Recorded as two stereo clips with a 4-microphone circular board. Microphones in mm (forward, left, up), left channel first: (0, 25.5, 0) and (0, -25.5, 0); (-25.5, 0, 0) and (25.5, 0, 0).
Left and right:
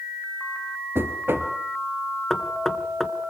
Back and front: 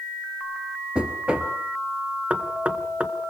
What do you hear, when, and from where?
0.9 s knocking: 65° right, 1.8 m
2.3 s knocking: 15° left, 1.2 m